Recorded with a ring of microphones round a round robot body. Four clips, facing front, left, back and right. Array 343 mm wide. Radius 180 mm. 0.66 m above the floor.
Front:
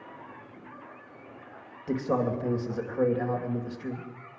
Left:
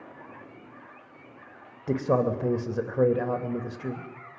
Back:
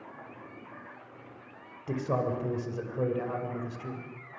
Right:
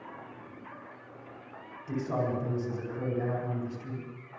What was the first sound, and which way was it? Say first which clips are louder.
A man speaking: left 7 dB, front 3 dB; 80° left.